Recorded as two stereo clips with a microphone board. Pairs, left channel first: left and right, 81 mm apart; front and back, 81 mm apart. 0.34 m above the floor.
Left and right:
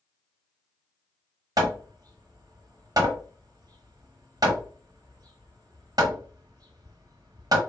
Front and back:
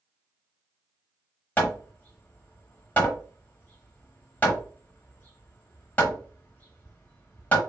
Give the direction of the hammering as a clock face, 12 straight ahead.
2 o'clock.